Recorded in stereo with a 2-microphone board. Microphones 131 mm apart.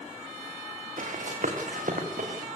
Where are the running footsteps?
85° right, 4.5 m; by 2.5 s 80° right, 4.5 m.